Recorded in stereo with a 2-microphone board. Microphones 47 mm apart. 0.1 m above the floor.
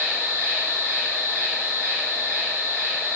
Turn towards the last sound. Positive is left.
turn(degrees=-55)  # may be behind; listen again after turning